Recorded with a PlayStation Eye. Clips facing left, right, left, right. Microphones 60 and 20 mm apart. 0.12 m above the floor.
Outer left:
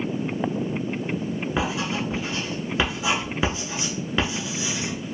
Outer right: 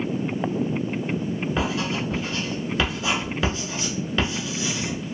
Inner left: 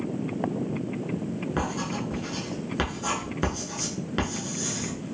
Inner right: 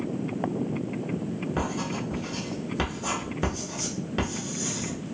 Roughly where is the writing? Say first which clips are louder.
Outer left 1 dB, inner left 1 dB; centre.